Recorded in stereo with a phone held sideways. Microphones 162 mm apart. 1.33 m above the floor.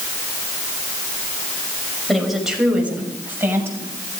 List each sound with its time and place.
2.1 s a woman speaking: centre (ahead or behind), 6 m; by 3.9 s 15° right (ahead or behind), 7 m